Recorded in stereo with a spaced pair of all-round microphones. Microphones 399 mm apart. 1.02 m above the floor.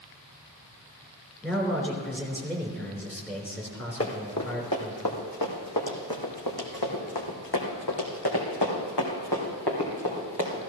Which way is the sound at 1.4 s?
5° left (ahead or behind).